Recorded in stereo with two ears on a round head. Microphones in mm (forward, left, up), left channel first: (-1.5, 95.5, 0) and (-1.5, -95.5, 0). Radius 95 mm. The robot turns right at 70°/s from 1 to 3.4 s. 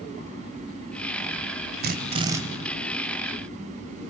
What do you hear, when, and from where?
1.8 s a drill: 50° right, 2 m; by 2.4 s 10° right, 2 m